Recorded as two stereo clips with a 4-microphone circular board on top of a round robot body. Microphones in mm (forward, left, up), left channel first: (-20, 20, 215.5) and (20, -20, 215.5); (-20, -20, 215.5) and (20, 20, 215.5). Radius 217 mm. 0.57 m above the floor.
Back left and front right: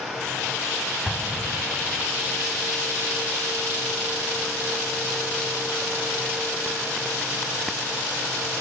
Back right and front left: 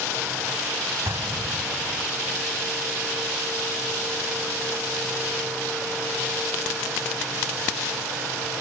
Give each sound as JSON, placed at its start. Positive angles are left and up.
{"t": 1.1, "sound": "an explosion", "azimuth_deg": 45}